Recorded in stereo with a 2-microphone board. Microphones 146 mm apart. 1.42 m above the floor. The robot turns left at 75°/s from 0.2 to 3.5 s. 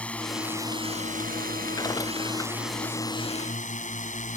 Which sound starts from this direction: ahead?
A drone, at 0.0 s.